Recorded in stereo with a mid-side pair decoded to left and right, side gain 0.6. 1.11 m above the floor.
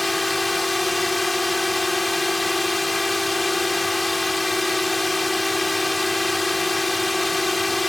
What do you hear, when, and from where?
0.0 s a drone: 15° left